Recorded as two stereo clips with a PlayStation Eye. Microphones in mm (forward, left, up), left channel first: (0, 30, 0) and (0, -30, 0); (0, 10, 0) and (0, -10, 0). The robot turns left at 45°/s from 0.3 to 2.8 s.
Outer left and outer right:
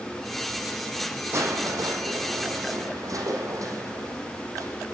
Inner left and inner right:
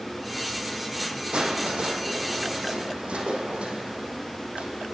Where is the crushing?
50° right, 4 m; by 4.8 s 115° right, 4 m.